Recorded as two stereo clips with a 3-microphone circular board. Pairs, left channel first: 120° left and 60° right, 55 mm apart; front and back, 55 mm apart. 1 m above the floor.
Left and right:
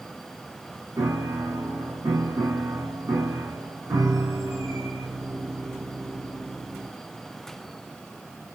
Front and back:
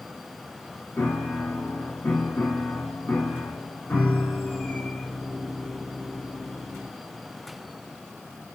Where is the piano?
60° right, 8.5 m.